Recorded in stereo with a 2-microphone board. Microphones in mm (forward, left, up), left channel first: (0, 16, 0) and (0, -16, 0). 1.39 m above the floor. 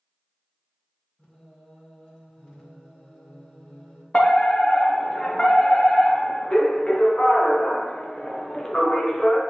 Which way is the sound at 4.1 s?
30° left (ahead or behind).